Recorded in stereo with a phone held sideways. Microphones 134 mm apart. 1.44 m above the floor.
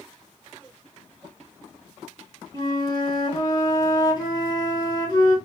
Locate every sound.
2.5 s a flute: 30° left (ahead or behind), 2 m